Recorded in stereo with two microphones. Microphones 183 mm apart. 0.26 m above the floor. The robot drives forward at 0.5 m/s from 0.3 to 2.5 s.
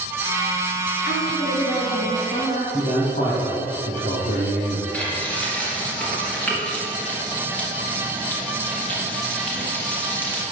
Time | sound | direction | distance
1.1 | a woman speaking | 65° left (ahead or behind) | 3 m
2.7 | a man speaking | 50° left (ahead or behind) | 2.5 m
4.9 | frying | 10° left (ahead or behind) | 2.5 m